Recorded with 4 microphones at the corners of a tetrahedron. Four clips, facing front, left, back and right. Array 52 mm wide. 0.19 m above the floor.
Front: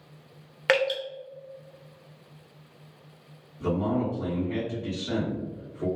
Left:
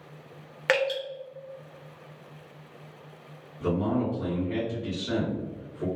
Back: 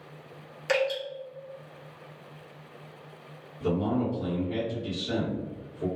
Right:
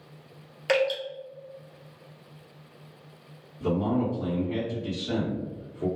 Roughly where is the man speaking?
Ahead left.